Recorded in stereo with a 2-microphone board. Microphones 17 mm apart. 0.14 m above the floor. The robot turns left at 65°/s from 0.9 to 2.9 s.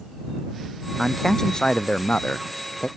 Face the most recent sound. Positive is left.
turn(degrees=50)